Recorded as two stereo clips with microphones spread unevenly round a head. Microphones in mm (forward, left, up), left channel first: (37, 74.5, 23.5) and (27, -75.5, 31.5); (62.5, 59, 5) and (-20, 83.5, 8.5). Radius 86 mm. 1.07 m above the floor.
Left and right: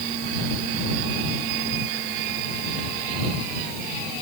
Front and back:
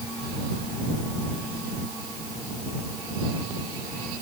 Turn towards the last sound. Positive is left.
No sound to turn to.